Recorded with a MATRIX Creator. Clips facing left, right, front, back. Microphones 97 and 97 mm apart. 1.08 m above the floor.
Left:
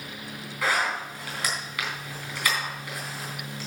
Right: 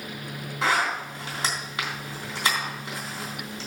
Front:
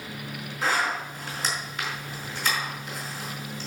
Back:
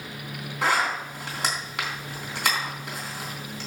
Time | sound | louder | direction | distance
0.6 | a zipper | right 2 dB, back 2 dB | 155° right | 3.5 m